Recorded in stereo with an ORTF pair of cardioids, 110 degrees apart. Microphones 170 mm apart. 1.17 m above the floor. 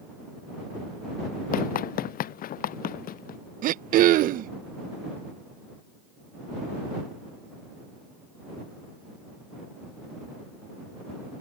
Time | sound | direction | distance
1.5 | running footsteps | 65° left | ?
3.6 | throat clearing | 60° right | ?